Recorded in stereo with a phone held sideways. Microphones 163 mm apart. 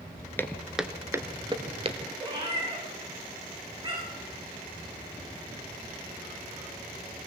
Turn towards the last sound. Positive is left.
turn(degrees=-25)  # may be behind; listen again after turning